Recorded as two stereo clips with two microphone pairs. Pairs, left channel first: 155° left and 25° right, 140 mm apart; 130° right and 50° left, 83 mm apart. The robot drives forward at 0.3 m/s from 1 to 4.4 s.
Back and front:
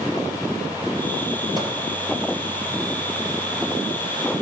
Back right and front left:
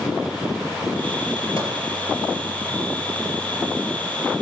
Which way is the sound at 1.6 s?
80° right.